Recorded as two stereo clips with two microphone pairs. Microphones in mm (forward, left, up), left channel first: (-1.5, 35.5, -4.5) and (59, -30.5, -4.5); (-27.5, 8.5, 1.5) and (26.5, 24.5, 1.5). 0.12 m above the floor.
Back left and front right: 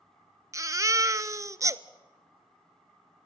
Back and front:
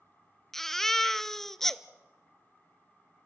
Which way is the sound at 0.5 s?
80° right.